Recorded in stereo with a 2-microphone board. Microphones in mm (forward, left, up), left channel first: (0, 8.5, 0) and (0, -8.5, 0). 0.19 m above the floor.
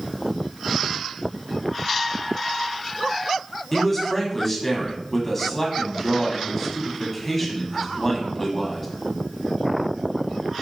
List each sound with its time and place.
3.7 s a man speaking: 15° left (ahead or behind), 1.0 m